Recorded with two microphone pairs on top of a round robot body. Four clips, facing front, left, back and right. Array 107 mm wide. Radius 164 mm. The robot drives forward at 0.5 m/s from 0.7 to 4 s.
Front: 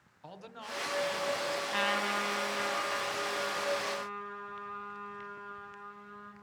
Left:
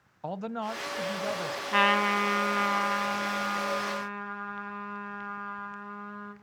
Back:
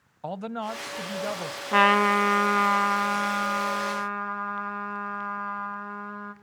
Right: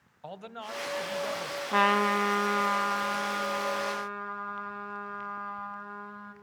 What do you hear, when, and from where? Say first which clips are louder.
0.2 s a man speaking: left 7 dB, back 14 dB; 140° left, 0.8 m; by 1.6 s 155° left, 1.2 m
1.7 s a trumpet: right 1 dB, back 15 dB; 160° right, 0.6 m; by 6.3 s 175° right, 1.7 m